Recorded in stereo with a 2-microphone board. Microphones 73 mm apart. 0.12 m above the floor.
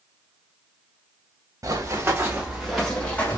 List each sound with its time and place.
1.6 s running footsteps: 50° right (ahead or behind), 1.2 m; by 3.4 s 25° left (ahead or behind), 1.3 m